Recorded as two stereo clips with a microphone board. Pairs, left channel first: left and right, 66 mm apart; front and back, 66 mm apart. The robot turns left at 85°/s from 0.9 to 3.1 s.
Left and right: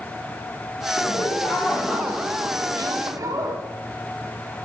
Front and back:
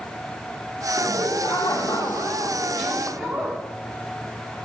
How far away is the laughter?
About 1.4 m.